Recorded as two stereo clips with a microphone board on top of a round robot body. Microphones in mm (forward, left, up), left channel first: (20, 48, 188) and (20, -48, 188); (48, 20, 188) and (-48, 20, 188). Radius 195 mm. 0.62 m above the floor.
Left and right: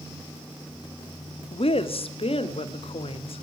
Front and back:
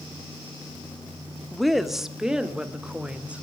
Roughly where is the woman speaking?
Left.